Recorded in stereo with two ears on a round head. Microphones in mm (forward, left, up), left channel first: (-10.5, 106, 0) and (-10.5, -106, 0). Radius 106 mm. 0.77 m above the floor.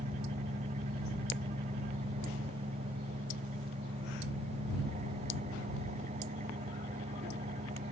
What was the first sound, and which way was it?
An engine running, 30° right (ahead or behind).